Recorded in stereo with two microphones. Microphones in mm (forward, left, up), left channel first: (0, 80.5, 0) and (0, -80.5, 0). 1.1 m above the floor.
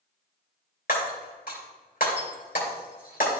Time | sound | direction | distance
0.9 | breaking glass | 70° left (ahead or behind) | 2.5 m